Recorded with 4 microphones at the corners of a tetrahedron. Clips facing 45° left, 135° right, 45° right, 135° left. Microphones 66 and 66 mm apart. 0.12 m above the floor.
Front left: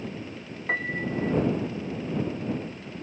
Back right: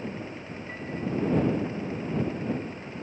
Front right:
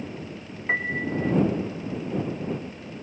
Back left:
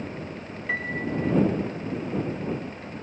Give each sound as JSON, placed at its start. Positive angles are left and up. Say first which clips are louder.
{"t": 0.7, "sound": "a piano", "louder": "front left 4 dB, front right 2 dB", "azimuth_deg": 20}